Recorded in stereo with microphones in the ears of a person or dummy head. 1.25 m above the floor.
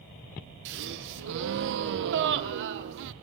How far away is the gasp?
About 0.6 m.